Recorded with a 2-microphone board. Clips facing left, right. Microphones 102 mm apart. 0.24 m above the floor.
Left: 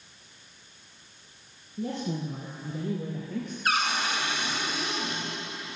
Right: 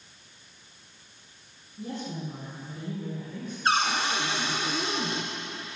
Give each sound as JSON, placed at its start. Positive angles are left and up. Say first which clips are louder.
{"t": 1.8, "sound": "a woman speaking", "louder": "left 4 dB", "side_deg": 75, "distance_m": 4.5}
{"t": 3.6, "sound": "a cupboard door", "louder": "right 3 dB", "side_deg": -30, "distance_m": 2.5}